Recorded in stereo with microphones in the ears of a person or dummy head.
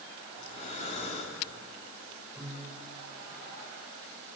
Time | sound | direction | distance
0.4 | breathing | 35° left (ahead or behind) | 4 m
2.4 | a piano | 10° right (ahead or behind) | 7 m